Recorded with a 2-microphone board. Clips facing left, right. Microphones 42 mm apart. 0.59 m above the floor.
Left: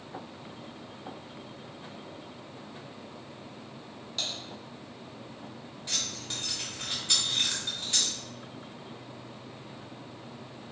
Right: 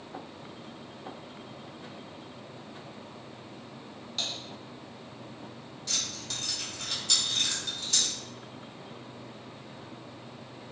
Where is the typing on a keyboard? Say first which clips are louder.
Even; 5° right (ahead or behind), 1.2 m.